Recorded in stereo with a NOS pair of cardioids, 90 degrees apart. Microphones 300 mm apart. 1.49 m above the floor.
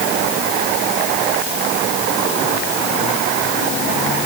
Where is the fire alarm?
No fire alarm in this recording.